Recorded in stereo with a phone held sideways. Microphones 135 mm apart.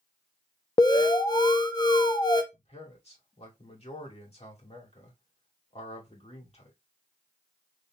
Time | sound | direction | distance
0.8 | an alarm | 30° left (ahead or behind) | 0.8 m
2.5 | a man speaking | 50° left (ahead or behind) | 2 m